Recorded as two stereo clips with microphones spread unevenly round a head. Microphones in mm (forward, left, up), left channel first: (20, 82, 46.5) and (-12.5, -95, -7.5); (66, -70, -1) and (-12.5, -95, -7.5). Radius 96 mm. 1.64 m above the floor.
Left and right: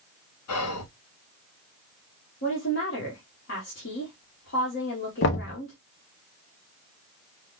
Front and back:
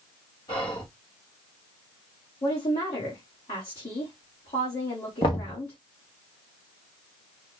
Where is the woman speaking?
50° left, 1.5 m.